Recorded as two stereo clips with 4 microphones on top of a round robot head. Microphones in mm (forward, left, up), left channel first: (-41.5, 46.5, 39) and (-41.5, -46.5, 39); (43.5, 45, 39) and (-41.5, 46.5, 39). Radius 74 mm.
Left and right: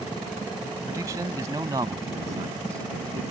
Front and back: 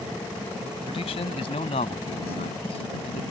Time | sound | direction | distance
0.9 | a man speaking | 25° right | ?